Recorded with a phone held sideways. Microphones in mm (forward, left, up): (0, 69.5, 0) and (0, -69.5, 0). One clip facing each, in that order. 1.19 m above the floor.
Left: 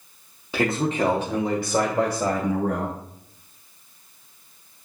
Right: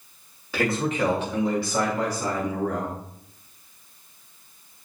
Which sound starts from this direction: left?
A man speaking, at 0.5 s.